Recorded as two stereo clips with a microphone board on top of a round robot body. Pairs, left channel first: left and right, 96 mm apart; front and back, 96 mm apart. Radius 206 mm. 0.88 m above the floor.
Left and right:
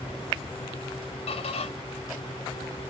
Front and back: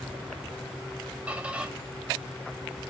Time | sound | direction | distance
1.3 | a squeak | 105° left | 0.9 m